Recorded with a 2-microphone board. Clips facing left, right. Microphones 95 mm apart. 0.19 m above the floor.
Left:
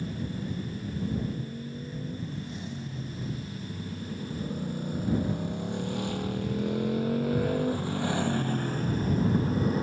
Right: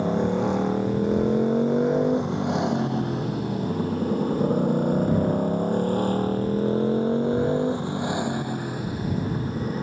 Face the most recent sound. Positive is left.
turn(degrees=0)  # may be behind; listen again after turning